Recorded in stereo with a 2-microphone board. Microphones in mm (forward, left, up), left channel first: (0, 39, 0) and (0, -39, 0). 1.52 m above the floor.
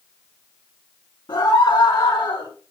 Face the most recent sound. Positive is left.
turn(degrees=80)